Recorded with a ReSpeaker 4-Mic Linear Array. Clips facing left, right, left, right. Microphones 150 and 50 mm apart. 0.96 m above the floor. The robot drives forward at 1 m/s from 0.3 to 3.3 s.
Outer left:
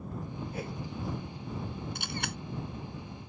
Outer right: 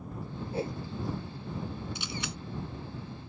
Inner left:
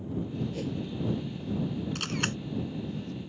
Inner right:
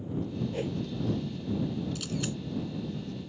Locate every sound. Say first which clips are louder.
0.5 s a whoosh: outer right 8 dB, inner right 1 dB; 30° right (ahead or behind); by 0.8 s 25° right (ahead or behind)
1.9 s a camera shutter: outer left 1 dB, inner left 2 dB; 55° left (ahead or behind); by 2.4 s 60° left (ahead or behind)